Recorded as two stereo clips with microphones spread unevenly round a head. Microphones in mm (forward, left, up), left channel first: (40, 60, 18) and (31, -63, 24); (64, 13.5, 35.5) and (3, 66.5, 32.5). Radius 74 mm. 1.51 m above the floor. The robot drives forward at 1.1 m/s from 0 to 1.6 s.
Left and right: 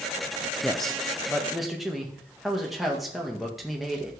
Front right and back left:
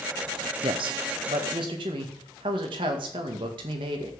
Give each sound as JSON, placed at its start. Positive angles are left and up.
{"t": 0.6, "sound": "a man speaking", "azimuth_deg": 170, "distance_m": 0.7}